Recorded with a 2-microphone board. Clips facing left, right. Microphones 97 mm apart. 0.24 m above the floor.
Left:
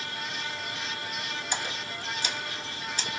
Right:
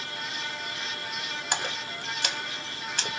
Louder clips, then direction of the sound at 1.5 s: Right 4 dB; 65° right (ahead or behind).